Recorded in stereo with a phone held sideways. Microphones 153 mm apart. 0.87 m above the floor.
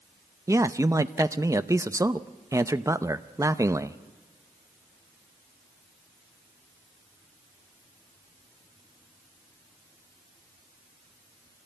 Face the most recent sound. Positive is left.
turn(degrees=-20)  # may be behind; listen again after turning